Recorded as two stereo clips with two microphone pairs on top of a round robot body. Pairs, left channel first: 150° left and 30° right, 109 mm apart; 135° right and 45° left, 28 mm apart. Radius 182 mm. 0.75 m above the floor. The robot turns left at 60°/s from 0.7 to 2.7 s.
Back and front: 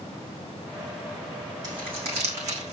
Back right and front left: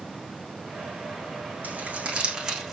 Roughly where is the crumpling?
Ahead.